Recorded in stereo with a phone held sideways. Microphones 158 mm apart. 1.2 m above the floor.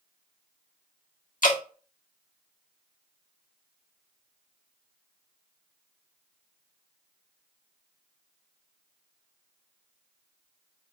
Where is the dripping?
60° left (ahead or behind), 1.2 m.